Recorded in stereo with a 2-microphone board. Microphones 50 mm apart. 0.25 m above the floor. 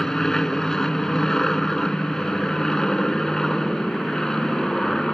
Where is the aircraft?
10° left (ahead or behind).